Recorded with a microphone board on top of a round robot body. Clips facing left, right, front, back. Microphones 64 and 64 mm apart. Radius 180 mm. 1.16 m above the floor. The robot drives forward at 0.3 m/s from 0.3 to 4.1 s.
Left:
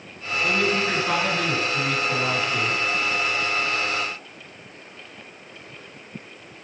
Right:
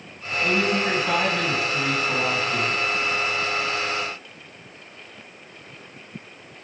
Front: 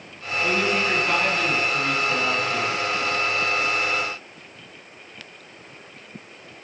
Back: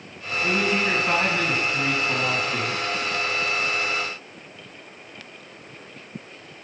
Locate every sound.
0.4 s a man speaking: 110° right, 2.5 m; by 2.8 s 125° right, 2.5 m